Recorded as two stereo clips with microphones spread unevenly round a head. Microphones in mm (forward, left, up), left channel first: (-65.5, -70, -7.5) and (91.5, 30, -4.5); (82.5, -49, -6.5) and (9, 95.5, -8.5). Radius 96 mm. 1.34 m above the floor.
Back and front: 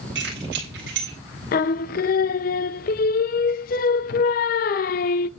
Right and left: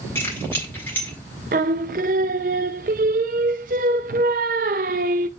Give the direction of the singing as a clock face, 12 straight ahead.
6 o'clock.